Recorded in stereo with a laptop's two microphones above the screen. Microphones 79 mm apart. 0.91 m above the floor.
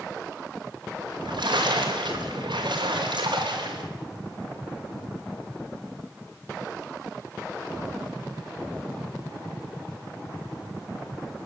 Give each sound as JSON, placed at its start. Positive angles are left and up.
{"t": 1.0, "sound": "a splash", "side_deg": -80, "distance_m": 4.0}